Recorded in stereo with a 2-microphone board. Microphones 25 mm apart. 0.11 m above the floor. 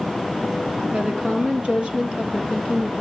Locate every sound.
0.9 s a woman speaking: 45° right (ahead or behind), 3 m